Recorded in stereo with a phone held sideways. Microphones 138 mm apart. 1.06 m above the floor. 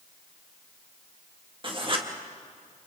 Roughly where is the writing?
Right.